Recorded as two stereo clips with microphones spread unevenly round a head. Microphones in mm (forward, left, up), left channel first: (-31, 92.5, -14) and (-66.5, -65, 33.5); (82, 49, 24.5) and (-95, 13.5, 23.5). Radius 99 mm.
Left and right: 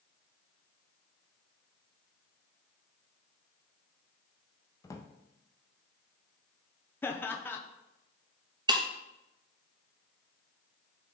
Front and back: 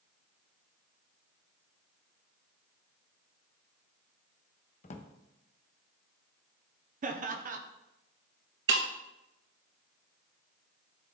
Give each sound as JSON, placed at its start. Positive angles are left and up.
{"t": 4.8, "sound": "a drawer", "azimuth_deg": -5, "distance_m": 0.5}
{"t": 7.0, "sound": "laughter", "azimuth_deg": 150, "distance_m": 0.7}
{"t": 8.7, "sound": "breaking glass", "azimuth_deg": -150, "distance_m": 0.8}